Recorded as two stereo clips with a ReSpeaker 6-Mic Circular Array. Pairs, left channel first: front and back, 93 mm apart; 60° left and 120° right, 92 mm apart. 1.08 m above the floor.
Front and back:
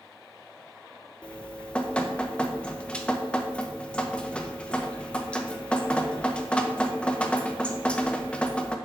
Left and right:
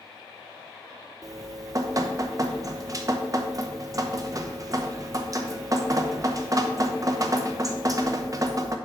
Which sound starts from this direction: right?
Dripping, at 1.2 s.